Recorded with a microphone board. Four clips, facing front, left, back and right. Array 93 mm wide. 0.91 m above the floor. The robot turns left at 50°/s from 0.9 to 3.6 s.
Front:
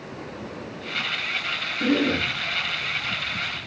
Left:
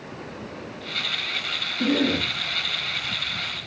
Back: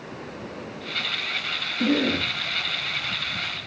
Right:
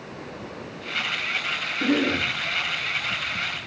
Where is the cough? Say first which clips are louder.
Even, front 1 dB; 130° left, 7.5 m; by 2.3 s 105° left, 7.5 m.